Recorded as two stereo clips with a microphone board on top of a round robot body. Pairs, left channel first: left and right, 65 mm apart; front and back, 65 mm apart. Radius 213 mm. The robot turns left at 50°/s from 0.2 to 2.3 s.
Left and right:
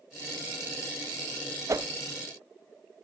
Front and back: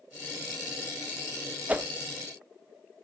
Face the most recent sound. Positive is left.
turn(degrees=-145)